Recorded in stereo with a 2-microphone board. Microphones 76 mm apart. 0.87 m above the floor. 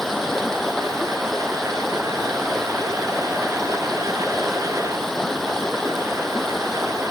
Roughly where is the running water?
Centre.